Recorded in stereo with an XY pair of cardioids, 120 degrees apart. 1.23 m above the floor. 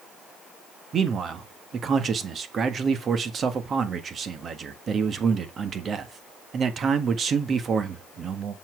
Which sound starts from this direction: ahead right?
A man speaking, at 0.9 s.